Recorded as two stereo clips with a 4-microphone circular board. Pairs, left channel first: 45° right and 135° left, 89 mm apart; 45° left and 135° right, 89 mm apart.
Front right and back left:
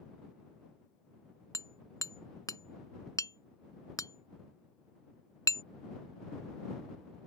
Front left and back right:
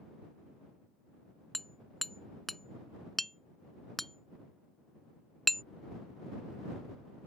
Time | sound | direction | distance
1.5 | hammering | 45° right | ?